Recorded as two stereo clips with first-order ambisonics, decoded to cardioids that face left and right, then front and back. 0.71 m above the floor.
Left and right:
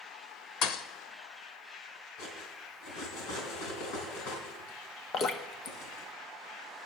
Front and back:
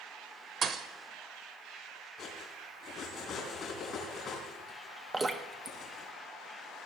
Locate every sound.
0.6 s a thud: 125° left, 0.8 m
2.2 s cutlery clinking: 60° left, 3.5 m
5.1 s dripping: 115° left, 0.8 m